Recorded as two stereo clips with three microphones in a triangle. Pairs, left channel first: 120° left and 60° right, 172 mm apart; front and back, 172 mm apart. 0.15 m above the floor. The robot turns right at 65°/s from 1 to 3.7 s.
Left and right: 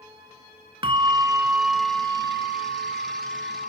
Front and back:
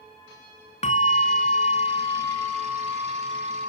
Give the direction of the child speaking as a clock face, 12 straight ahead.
I don't hear a child speaking.